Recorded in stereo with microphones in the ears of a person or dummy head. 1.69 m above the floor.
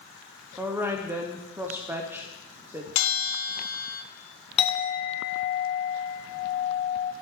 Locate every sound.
0.6 s a woman speaking: 5° right (ahead or behind), 0.7 m
3.0 s a bell: 75° left (ahead or behind), 1.0 m
4.6 s a clink: 35° left (ahead or behind), 0.7 m